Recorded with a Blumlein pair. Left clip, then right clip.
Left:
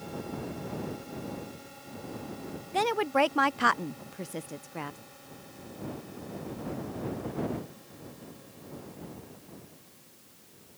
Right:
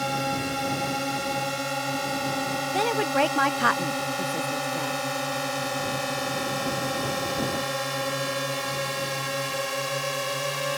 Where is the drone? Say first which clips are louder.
Right 13 dB; 40° right; by 10.8 s 45° right.